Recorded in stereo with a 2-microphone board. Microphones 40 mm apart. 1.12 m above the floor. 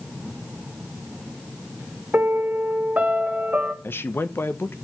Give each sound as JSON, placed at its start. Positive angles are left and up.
{"t": 2.1, "sound": "a piano", "side_deg": -40, "distance_m": 1.1}
{"t": 3.8, "sound": "a man speaking", "side_deg": 65, "distance_m": 0.8}